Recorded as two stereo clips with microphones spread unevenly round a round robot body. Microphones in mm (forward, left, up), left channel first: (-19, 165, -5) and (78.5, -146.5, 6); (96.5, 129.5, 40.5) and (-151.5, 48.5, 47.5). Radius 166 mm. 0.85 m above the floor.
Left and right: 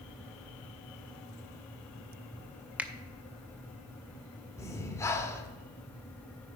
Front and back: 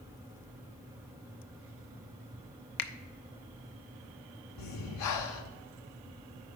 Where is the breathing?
25° left, 0.9 m.